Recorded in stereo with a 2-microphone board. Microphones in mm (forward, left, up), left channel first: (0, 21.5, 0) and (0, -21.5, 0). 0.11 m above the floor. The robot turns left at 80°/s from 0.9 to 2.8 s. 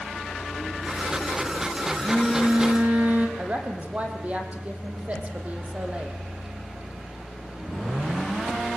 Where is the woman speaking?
35° right (ahead or behind), 4.5 m.